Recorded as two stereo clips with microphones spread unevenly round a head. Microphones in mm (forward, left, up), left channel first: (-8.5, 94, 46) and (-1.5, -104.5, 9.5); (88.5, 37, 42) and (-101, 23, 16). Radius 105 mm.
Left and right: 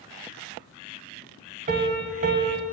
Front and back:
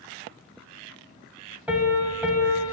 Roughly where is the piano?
Right.